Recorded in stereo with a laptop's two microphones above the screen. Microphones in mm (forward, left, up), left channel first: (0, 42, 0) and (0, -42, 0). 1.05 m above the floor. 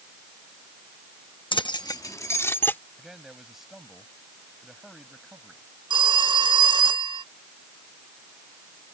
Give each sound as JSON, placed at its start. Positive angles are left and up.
{"t": 1.5, "sound": "keys jangling", "side_deg": 80}
{"t": 3.0, "sound": "a man speaking", "side_deg": -5}
{"t": 5.9, "sound": "a phone ringing", "side_deg": -65}